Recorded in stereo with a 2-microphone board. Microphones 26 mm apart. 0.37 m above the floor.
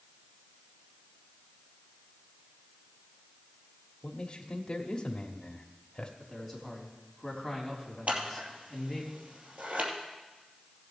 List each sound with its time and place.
4.0 s a man speaking: 30° left (ahead or behind), 1.1 m
6.2 s a man speaking: centre (ahead or behind), 3.5 m
8.1 s scissors: 65° right (ahead or behind), 2.5 m